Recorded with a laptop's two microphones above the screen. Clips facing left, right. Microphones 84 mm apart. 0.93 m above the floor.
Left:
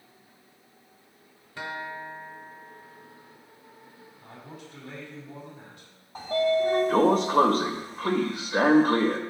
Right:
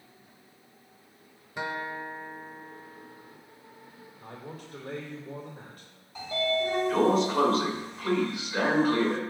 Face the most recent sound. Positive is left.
turn(degrees=45)  # may be behind; listen again after turning